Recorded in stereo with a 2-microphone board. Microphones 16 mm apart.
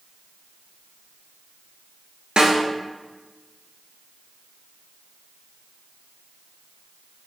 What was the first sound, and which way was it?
A snare drum, 65° right (ahead or behind).